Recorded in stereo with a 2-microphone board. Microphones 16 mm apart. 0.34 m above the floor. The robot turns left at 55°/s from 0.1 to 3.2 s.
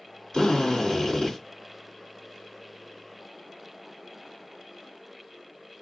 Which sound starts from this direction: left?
A drill, at 0.3 s.